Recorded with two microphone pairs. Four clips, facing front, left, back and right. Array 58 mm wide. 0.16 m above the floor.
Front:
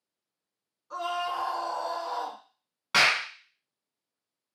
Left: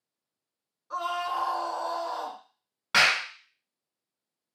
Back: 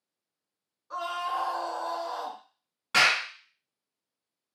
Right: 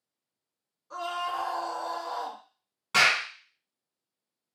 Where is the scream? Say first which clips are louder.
Left 2 dB, even; 120° left, 1.3 m; by 2.4 s 25° left, 1.6 m.